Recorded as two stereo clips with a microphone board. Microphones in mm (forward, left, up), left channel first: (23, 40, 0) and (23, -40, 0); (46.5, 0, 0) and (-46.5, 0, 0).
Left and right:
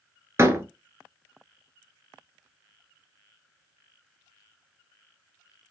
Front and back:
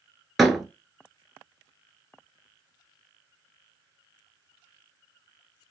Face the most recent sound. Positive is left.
turn(degrees=-90)